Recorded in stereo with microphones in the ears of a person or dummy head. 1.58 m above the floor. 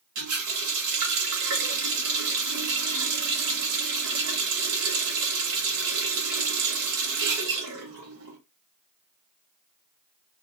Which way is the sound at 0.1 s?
60° right (ahead or behind).